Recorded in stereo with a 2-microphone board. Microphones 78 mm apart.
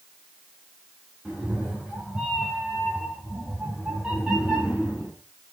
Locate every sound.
1.2 s a cat meowing: 10° right (ahead or behind), 5.5 m